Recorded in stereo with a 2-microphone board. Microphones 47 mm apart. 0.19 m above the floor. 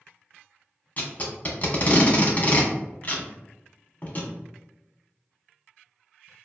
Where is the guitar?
I don't hear a guitar.